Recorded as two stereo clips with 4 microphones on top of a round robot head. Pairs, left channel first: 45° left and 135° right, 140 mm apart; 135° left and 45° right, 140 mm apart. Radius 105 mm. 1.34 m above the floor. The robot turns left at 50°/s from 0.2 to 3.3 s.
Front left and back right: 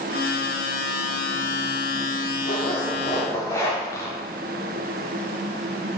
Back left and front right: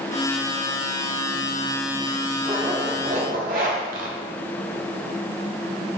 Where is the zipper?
20° left, 1.3 m; by 4.2 s 20° right, 1.3 m.